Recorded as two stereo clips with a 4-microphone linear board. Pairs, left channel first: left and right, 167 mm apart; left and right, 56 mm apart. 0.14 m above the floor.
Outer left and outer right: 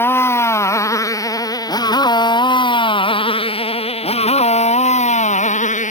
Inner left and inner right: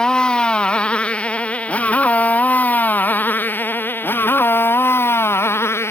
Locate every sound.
0.0 s a motorcycle: 15° left (ahead or behind); by 5.9 s 50° left (ahead or behind)